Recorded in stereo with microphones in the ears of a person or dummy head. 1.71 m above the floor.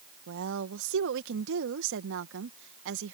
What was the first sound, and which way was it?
A woman speaking, 70° right (ahead or behind).